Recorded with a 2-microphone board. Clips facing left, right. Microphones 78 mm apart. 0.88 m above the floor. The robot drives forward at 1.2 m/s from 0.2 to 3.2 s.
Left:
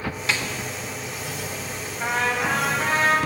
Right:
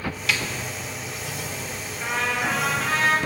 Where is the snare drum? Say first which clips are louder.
Even; 30° left (ahead or behind), 1.1 m; by 0.5 s 25° left (ahead or behind), 1.3 m.